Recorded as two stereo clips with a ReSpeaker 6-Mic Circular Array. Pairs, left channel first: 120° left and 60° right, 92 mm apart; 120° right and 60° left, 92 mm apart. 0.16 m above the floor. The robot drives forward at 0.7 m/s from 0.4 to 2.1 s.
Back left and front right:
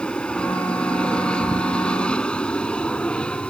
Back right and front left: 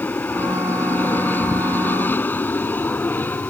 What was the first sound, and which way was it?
An aircraft, 170° right.